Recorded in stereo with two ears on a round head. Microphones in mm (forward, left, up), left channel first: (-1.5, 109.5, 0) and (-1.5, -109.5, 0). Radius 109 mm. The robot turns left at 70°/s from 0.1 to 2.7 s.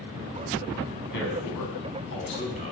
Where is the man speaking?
130° left, 5 m; by 2.7 s 20° left, 5 m.